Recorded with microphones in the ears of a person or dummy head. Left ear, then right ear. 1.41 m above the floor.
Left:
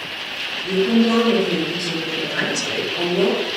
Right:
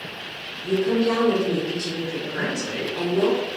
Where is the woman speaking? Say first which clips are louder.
Left 2 dB; 20° right (ahead or behind), 0.9 m.